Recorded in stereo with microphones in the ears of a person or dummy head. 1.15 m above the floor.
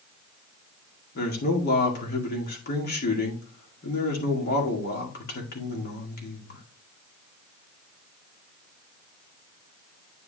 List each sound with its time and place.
1.1 s a man speaking: 50° left (ahead or behind), 2 m